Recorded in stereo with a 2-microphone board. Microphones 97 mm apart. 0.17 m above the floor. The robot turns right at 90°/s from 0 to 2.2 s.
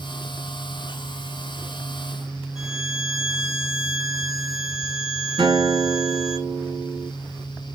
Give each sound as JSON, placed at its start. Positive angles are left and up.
{"t": 2.5, "sound": "a violin", "side_deg": -5, "distance_m": 2.5}
{"t": 5.4, "sound": "a guitar", "side_deg": -55, "distance_m": 2.5}